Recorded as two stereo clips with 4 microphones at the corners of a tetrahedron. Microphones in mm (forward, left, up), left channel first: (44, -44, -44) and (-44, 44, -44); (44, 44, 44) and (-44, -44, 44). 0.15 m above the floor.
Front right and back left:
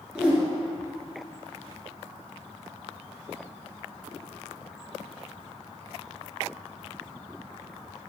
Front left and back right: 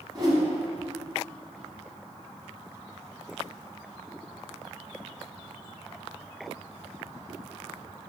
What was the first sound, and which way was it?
A whoosh, 145° right.